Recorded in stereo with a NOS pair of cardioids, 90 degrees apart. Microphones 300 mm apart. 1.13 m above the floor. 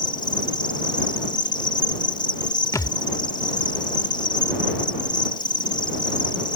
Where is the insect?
15° left.